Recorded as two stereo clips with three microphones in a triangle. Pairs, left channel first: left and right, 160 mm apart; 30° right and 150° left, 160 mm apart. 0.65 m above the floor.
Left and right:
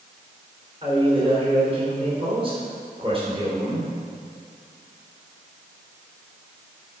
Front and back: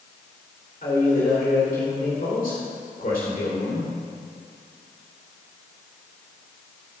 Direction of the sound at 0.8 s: 40° right.